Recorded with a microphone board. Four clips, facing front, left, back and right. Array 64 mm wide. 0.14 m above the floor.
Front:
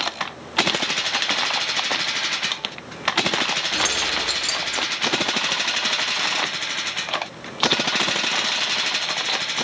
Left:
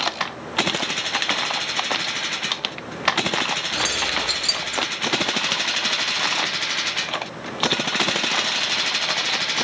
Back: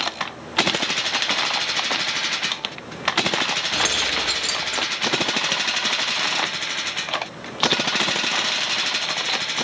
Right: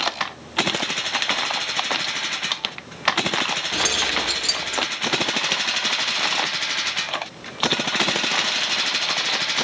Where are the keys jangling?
140° right, 3.5 m.